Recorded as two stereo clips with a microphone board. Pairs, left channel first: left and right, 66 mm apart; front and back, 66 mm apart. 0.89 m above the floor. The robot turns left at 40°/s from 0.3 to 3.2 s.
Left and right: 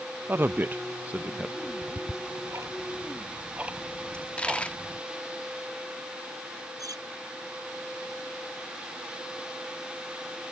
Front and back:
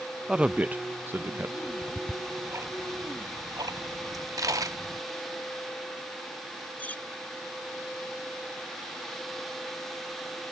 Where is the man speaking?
110° right; by 1.5 s 160° right.